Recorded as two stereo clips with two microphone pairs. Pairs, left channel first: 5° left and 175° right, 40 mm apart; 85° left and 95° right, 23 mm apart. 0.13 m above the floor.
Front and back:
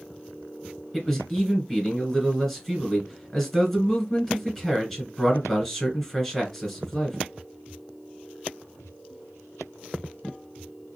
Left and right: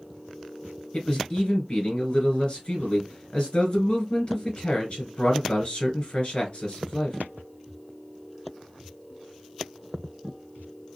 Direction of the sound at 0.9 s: 90° left.